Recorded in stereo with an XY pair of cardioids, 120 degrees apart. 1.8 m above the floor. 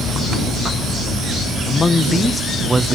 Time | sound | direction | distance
1.7 | a man speaking | 35° left | ?